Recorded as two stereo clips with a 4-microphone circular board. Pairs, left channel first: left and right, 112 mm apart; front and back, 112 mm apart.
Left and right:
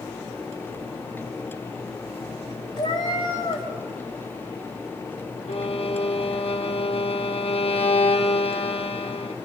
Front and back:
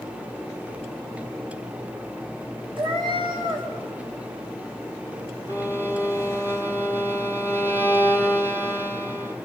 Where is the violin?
110° left, 1.4 m.